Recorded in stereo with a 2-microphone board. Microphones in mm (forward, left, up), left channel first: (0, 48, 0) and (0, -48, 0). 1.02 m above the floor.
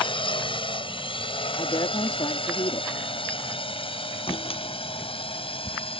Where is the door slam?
80° left.